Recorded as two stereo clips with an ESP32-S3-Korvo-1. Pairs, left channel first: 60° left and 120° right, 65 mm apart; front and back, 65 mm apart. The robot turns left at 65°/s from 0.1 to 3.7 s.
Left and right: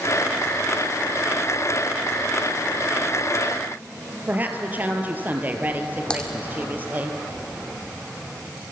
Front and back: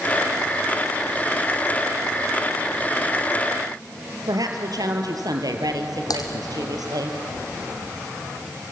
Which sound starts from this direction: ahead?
Typing on a keyboard, at 6.1 s.